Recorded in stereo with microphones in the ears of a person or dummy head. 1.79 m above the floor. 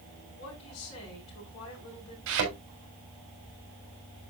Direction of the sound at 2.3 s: 75° right (ahead or behind).